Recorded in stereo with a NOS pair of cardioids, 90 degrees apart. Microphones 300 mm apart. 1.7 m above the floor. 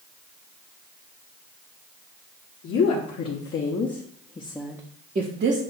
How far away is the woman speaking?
About 1.4 m.